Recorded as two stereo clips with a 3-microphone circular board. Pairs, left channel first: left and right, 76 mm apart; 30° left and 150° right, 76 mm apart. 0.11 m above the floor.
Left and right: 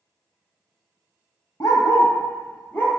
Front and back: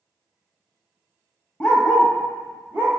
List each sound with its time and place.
1.6 s a dog barking: 105° left, 0.9 m; by 3.0 s 155° left, 1.0 m